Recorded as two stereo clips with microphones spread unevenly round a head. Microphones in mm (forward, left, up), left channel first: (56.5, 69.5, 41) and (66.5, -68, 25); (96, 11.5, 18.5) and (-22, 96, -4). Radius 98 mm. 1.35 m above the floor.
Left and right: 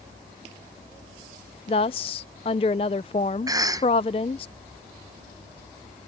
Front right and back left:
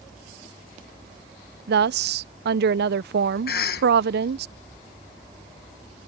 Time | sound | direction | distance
1.7 | a woman speaking | 155° left | ?
3.5 | a cough | 25° right | ?